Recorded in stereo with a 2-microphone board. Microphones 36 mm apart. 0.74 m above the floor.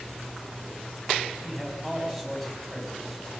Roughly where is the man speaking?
Centre.